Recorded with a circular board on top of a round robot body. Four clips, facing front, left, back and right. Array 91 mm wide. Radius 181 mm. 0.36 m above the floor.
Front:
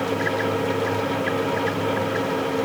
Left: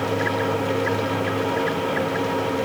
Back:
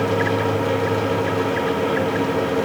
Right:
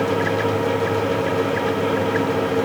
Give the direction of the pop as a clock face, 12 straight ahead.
I don't hear a pop.